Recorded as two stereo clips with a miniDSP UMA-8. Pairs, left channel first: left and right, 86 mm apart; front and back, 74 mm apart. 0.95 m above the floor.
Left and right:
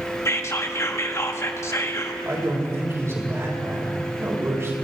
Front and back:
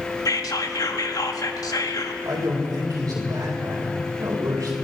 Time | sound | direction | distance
0.2 | whispering | 35° left | 1.3 m
2.2 | a man speaking | 145° right | 4 m